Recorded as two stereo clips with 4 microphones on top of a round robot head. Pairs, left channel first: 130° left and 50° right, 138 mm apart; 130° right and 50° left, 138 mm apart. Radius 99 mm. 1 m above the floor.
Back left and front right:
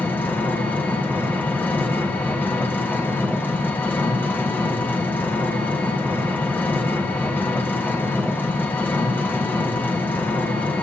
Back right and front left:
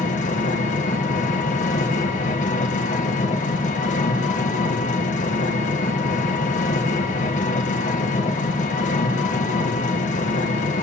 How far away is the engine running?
About 1.5 m.